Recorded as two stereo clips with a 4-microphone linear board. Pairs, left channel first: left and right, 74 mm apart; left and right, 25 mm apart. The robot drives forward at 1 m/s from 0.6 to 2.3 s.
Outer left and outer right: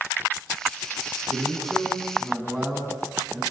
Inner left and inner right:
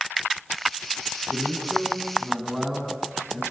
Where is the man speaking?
Centre (ahead or behind), 7 m.